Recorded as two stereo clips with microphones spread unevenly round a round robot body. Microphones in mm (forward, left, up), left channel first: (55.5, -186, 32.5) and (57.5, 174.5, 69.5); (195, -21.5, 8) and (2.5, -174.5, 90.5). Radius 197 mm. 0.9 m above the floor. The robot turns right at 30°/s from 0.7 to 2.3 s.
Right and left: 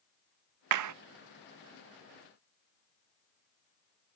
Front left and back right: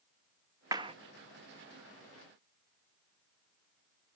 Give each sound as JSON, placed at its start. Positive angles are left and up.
{"t": 0.7, "sound": "a clap", "azimuth_deg": 130}